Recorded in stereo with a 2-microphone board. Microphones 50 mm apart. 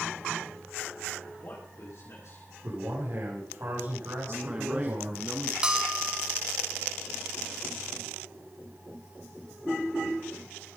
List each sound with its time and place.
1.3 s a man speaking: 65° left (ahead or behind), 7 m
2.6 s a man speaking: 60° right (ahead or behind), 8 m
4.3 s a man speaking: 25° right (ahead or behind), 1.4 m
5.6 s a bell: 15° right (ahead or behind), 1.6 m